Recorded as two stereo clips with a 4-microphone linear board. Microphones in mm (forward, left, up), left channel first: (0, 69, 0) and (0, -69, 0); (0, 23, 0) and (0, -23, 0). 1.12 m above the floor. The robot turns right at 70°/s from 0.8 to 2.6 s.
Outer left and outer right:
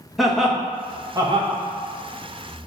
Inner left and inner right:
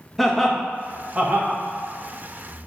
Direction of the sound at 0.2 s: Centre (ahead or behind).